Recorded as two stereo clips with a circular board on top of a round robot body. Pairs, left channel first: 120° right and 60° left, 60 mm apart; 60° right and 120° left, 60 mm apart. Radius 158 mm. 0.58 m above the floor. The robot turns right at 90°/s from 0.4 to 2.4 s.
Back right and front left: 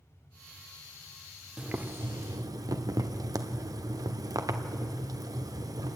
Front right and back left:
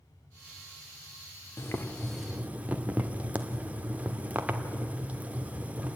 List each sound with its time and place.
1.6 s boiling: 20° right, 1.5 m; by 6.0 s 55° left, 1.5 m